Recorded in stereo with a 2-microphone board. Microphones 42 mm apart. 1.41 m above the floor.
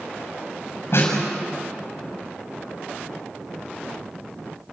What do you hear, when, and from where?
0.9 s a snare drum: 65° left (ahead or behind), 6.5 m